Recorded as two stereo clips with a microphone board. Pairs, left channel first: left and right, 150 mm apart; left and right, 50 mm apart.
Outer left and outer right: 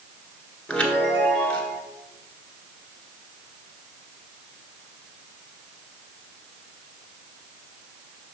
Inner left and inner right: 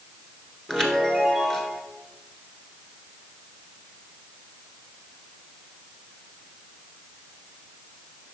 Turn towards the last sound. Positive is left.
turn(degrees=5)  # may be behind; listen again after turning